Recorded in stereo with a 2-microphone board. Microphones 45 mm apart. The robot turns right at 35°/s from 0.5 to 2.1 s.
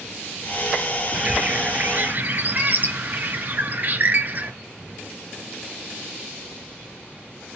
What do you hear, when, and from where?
1.1 s a bird: 160° right, 0.5 m; by 4.5 s 125° right, 0.5 m